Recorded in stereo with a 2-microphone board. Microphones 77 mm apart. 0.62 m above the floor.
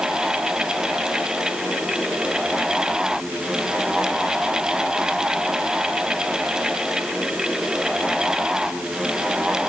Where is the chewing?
No chewing in this recording.